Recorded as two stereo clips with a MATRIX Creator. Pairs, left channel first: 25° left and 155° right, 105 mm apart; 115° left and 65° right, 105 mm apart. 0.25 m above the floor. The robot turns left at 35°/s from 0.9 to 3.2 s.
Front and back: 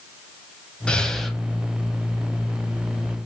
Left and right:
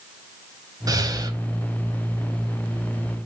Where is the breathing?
50° right, 0.6 m; by 1.4 s 70° right, 0.6 m.